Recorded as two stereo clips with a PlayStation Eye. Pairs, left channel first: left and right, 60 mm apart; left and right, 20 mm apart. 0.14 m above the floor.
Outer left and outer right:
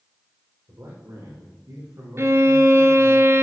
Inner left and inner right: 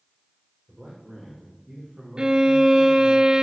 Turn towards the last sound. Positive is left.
turn(degrees=-50)  # may be behind; listen again after turning